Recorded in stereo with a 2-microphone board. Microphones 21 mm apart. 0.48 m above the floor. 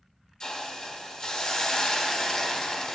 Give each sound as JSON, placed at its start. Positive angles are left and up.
{"t": 0.4, "sound": "a hiss", "side_deg": 45, "distance_m": 0.7}